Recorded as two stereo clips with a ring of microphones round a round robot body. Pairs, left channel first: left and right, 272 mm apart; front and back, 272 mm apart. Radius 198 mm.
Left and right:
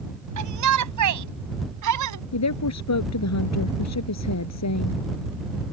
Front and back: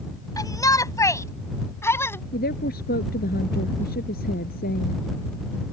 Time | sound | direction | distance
0.4 | a shout | 80° right | ?
2.3 | a woman speaking | 70° left | ?